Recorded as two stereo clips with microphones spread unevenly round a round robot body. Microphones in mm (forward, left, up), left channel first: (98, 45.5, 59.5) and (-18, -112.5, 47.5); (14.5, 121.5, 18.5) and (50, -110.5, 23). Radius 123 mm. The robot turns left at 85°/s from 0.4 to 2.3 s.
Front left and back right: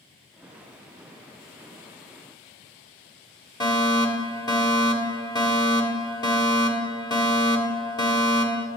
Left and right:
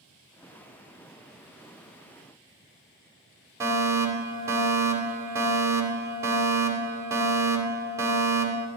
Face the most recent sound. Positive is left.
turn(degrees=-10)